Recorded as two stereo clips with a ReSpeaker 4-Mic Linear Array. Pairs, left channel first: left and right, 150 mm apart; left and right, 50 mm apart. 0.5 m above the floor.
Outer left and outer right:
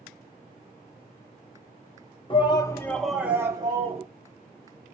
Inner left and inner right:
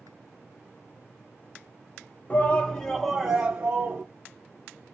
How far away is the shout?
About 0.7 m.